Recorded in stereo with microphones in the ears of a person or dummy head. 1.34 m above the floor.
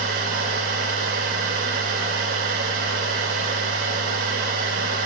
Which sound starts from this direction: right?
A machine running, at 0.0 s.